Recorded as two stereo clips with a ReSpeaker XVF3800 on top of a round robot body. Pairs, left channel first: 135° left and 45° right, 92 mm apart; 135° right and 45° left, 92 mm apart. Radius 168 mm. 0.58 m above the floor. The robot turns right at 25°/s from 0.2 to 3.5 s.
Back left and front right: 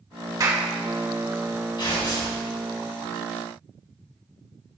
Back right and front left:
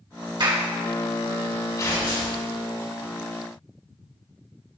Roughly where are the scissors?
I don't hear scissors.